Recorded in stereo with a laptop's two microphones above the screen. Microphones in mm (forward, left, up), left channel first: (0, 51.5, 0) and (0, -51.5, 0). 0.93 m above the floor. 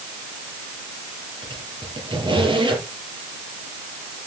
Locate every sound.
1.4 s a squeak: 55° right (ahead or behind), 6.5 m